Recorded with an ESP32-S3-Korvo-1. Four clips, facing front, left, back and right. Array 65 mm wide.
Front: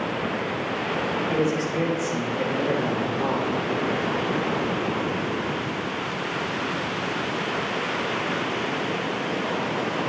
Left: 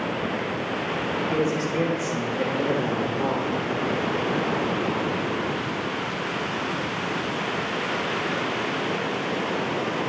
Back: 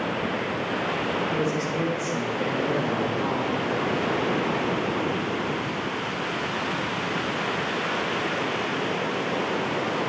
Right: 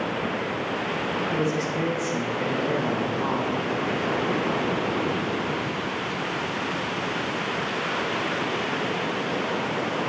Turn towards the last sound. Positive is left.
turn(degrees=65)